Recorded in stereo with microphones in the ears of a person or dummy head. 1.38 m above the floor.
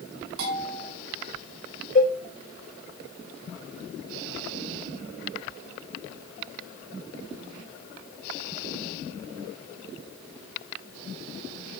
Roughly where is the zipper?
No zipper in this recording.